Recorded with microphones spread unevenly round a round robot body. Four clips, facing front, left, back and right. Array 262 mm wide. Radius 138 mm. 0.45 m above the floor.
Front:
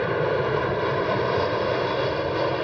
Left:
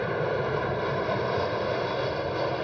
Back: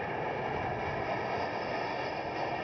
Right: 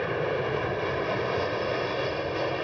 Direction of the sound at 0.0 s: 10° left.